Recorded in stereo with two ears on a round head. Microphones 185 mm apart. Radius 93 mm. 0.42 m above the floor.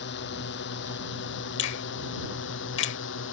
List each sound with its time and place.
0.0 s a drone: 60° left (ahead or behind); by 3.3 s 70° left (ahead or behind)
1.6 s a finger snap: 60° left (ahead or behind)